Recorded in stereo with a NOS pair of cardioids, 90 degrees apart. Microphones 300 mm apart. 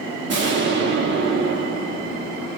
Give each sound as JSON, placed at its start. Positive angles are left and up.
{"t": 0.3, "sound": "an explosion", "azimuth_deg": -35, "distance_m": 0.9}